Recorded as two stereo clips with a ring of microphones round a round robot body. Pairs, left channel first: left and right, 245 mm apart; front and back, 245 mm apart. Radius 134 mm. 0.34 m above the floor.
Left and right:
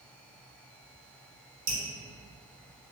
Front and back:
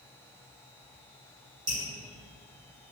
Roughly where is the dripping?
Right.